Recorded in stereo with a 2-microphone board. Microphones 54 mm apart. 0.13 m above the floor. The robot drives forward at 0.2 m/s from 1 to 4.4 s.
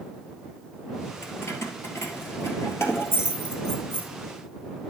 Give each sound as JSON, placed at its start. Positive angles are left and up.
{"t": 1.2, "sound": "keys jangling", "side_deg": 60, "distance_m": 1.5}